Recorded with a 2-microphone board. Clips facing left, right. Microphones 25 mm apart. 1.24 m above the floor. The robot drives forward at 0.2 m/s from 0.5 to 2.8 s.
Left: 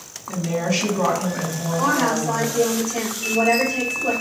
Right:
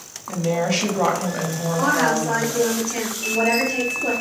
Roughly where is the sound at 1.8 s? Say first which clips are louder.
Right 1 dB; right.